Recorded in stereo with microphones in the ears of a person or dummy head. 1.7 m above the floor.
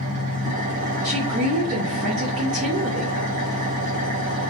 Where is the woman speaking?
50° right (ahead or behind), 1.4 m.